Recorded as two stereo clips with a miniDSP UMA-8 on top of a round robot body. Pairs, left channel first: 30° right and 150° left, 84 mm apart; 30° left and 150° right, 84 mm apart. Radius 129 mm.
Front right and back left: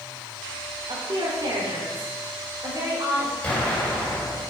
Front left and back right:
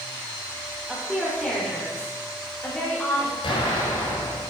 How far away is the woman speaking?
About 2.5 m.